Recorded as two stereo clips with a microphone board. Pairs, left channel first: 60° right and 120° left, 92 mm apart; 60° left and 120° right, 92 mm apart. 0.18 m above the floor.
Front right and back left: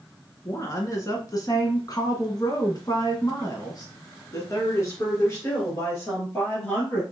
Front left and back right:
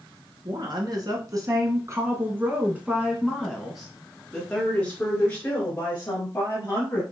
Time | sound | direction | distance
0.5 | a woman speaking | 110° right | 1.9 m